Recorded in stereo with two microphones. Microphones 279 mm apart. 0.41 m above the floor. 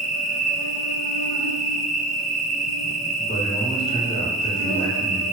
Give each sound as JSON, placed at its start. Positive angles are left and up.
{"t": 0.0, "sound": "an insect", "side_deg": 70, "distance_m": 0.8}
{"t": 3.2, "sound": "a man speaking", "side_deg": 25, "distance_m": 1.5}